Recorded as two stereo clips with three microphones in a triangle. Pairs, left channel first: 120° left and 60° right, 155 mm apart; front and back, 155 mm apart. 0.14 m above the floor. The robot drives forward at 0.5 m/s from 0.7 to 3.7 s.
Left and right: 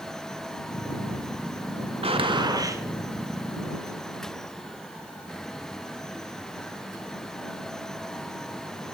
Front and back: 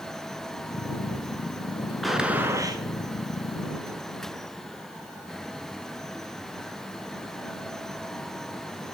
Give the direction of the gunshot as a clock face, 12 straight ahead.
3 o'clock.